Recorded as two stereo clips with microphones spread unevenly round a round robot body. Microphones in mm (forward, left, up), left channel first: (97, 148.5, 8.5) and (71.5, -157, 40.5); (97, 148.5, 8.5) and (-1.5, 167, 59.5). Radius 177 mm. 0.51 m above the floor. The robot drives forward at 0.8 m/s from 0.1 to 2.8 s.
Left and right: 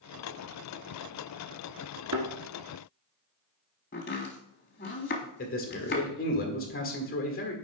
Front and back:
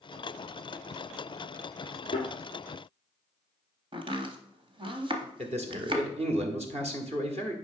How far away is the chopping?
About 0.7 m.